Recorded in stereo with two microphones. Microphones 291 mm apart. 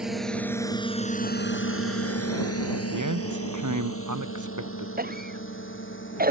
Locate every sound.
0.0 s a drone: centre (ahead or behind); by 6.3 s 40° left (ahead or behind)
2.9 s a man speaking: 85° right
5.0 s a cough: 30° right (ahead or behind)